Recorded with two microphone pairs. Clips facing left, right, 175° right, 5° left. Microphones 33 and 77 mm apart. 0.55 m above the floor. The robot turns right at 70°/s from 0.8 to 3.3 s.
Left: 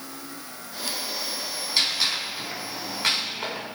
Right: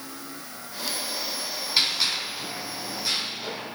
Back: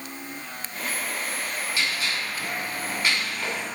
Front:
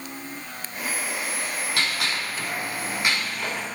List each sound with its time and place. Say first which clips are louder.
1.8 s a gunshot: even, front 2 dB; 10° right, 5 m; by 3.7 s 95° left, 5 m